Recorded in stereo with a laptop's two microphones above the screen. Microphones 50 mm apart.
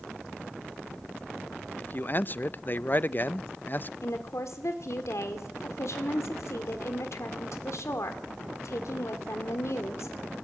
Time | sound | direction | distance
1.8 | a man speaking | 40° left (ahead or behind) | 0.5 m
4.0 | a woman speaking | 70° left (ahead or behind) | 2.5 m